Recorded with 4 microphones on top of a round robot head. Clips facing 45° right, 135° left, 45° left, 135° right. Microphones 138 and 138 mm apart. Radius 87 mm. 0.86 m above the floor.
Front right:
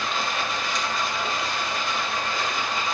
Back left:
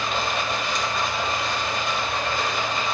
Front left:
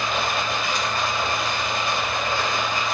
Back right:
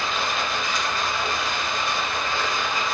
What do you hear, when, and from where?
0.0 s running water: 100° left, 2.0 m